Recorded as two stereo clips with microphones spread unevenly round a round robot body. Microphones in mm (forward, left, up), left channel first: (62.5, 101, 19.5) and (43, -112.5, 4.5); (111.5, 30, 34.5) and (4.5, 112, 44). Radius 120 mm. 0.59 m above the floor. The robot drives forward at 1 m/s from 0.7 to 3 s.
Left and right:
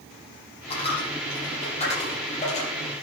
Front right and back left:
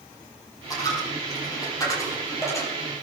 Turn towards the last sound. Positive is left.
turn(degrees=30)